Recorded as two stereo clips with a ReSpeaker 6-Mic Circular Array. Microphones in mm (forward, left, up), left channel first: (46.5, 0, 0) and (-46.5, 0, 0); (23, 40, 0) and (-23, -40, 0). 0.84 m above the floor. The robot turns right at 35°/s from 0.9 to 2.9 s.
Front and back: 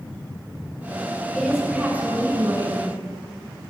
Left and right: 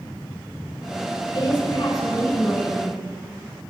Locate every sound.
1.3 s a woman speaking: 90° left, 8 m; by 3.0 s 145° left, 8 m